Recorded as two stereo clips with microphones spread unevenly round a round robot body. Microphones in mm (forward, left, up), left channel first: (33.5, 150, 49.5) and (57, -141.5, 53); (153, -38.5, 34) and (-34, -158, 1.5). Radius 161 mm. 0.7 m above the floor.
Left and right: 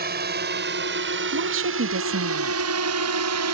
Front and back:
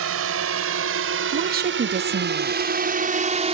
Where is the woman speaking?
120° right.